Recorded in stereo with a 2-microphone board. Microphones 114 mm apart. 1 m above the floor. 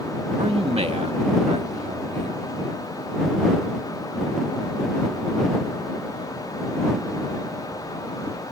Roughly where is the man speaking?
Right.